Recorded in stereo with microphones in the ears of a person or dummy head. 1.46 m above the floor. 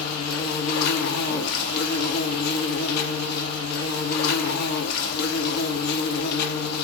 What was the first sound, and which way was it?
An insect, 60° left (ahead or behind).